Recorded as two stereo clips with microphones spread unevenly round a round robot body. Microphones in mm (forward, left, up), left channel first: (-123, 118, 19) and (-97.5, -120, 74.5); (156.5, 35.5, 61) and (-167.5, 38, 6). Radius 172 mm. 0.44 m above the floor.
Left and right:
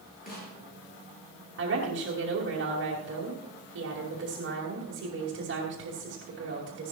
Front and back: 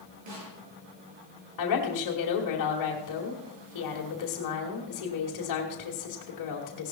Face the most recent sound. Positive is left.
turn(degrees=-35)